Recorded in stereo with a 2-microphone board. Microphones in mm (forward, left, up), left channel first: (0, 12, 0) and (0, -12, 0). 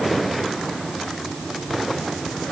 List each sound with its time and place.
Only background noise.